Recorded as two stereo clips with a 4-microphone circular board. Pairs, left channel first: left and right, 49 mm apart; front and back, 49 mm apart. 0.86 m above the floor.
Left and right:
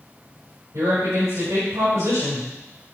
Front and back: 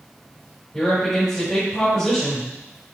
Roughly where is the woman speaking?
Right.